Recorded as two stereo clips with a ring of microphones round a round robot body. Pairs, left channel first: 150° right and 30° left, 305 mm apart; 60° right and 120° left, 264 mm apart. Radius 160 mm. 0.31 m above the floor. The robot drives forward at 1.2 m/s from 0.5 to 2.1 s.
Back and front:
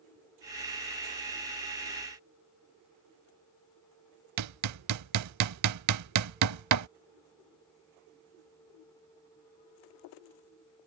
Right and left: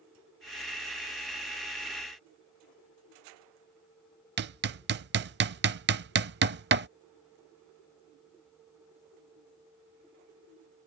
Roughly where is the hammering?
Ahead left.